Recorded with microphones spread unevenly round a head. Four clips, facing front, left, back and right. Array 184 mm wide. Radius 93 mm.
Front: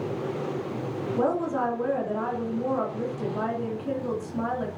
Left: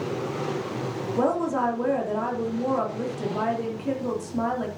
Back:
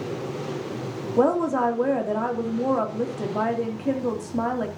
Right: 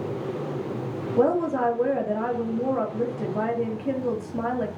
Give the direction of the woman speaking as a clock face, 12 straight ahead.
5 o'clock.